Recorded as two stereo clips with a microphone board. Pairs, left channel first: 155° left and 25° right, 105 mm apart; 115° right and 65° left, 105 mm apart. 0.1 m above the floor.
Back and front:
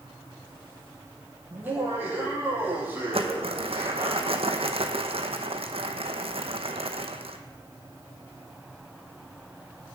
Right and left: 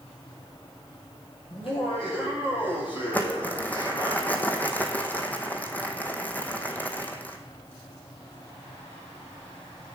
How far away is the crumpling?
About 1.0 m.